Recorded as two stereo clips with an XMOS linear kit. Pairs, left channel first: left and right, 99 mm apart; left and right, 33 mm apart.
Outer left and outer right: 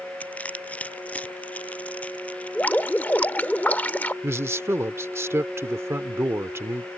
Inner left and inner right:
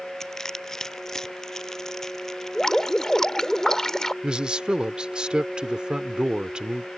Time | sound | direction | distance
0.2 | crushing | 15° left (ahead or behind) | ?
2.5 | dripping | 15° left (ahead or behind) | ?
4.2 | a man speaking | 25° right (ahead or behind) | ?